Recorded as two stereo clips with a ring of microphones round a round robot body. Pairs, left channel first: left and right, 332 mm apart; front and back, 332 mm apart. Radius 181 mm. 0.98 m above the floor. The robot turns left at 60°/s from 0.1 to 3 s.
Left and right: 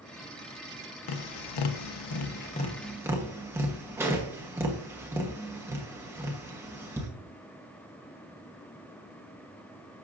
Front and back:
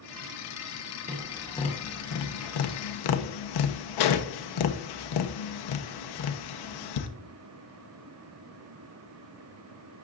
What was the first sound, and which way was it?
Tapping, 110° left.